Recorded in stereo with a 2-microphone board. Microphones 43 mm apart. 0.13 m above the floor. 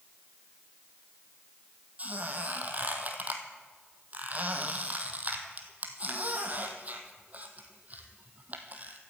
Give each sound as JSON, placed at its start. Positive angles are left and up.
{"t": 2.0, "sound": "a squeak", "side_deg": -40, "distance_m": 1.6}